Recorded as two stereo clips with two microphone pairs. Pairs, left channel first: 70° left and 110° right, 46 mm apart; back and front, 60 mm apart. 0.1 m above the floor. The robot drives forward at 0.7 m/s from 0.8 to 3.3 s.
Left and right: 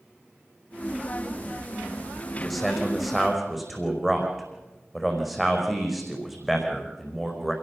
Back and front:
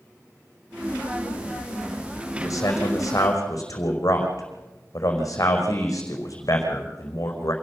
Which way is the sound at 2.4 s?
160° left.